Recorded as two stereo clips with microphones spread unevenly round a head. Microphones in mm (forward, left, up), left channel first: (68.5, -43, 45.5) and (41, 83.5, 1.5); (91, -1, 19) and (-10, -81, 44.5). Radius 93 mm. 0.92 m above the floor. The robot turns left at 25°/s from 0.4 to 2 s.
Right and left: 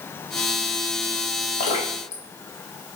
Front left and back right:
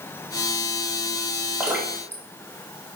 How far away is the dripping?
About 2 m.